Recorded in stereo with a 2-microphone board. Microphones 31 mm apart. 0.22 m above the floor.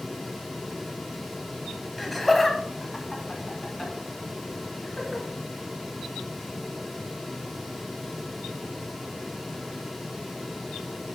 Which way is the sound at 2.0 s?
5° left (ahead or behind).